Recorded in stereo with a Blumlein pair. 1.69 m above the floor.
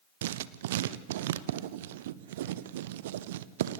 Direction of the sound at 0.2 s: 55° right.